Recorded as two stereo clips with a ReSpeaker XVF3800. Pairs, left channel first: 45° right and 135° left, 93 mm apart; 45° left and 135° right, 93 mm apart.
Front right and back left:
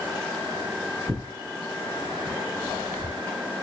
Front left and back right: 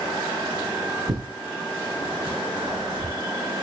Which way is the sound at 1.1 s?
160° right.